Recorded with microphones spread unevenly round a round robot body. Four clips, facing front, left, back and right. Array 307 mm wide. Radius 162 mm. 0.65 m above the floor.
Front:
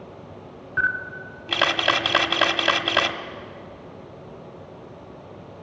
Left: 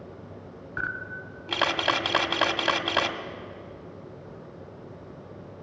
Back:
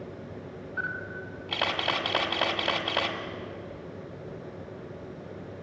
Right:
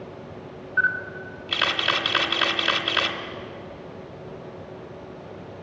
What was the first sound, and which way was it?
A camera shutter, 20° left.